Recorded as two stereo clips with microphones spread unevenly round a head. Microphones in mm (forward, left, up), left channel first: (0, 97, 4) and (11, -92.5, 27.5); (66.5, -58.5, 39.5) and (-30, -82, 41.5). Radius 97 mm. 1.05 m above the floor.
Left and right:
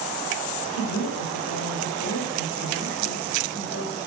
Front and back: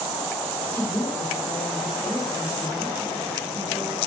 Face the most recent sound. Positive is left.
turn(degrees=90)